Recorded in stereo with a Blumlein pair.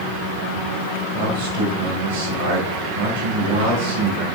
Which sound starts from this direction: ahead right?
A man speaking, at 1.1 s.